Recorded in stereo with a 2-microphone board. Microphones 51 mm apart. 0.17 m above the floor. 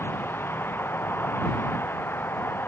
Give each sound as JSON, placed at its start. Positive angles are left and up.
{"t": 0.0, "sound": "a vehicle", "side_deg": 50}